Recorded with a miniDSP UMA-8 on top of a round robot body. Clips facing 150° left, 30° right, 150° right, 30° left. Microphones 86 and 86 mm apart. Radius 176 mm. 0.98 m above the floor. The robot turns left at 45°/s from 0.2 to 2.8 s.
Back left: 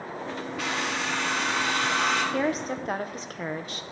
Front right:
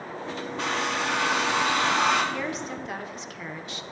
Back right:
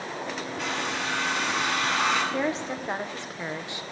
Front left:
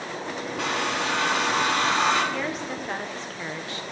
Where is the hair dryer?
30° left, 0.6 m; by 2.2 s 45° right, 0.6 m.